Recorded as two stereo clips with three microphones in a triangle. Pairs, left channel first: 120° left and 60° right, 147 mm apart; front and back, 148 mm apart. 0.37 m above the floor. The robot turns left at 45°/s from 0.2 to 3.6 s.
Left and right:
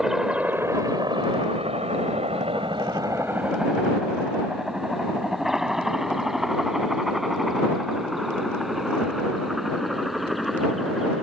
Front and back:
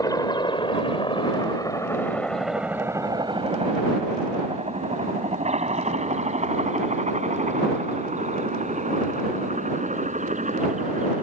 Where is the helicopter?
25° left; by 11.2 s 150° right.